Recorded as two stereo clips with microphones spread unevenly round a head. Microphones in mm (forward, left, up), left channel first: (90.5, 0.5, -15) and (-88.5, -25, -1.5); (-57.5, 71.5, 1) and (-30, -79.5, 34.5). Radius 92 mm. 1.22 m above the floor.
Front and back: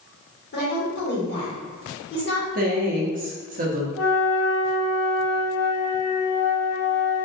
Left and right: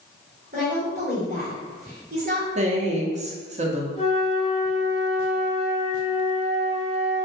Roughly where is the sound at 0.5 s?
Ahead right.